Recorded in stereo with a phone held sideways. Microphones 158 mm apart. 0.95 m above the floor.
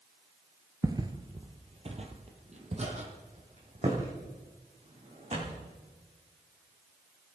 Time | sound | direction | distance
0.8 | footsteps | 20° right (ahead or behind) | 0.9 m